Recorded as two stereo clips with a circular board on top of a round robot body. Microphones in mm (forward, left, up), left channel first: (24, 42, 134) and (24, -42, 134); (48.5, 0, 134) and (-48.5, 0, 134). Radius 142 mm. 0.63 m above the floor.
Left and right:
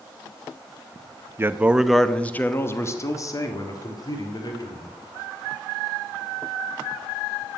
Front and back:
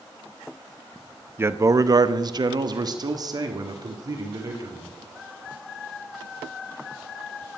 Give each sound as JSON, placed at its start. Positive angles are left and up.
{"t": 1.4, "sound": "a man speaking", "azimuth_deg": -125, "distance_m": 1.0}